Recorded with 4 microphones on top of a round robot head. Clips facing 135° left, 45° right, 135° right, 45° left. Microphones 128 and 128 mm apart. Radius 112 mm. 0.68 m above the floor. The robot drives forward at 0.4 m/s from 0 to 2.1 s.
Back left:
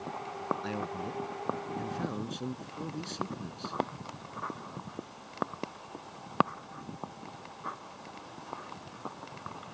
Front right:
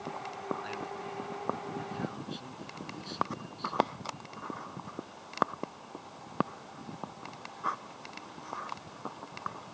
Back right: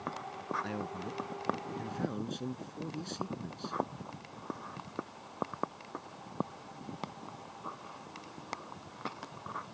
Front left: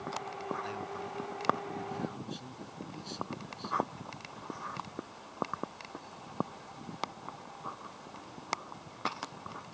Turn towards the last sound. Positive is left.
turn(degrees=-175)